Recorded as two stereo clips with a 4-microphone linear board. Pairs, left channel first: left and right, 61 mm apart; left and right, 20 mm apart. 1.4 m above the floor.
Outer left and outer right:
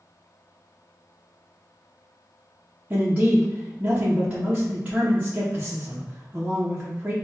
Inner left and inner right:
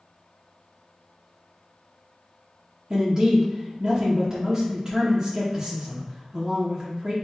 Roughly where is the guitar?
I don't hear a guitar.